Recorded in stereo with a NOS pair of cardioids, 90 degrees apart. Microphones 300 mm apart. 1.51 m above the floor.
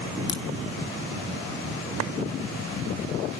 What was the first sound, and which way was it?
A crack, 35° left.